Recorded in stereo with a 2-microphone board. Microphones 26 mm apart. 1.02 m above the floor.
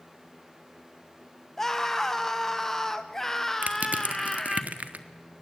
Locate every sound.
1.6 s a scream: 15° left (ahead or behind), 0.8 m
3.6 s crushing: 80° right, 1.3 m